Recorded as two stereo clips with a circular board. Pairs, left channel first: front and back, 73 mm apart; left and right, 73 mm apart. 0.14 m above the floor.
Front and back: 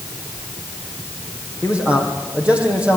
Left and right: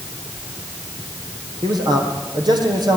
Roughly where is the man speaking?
Right.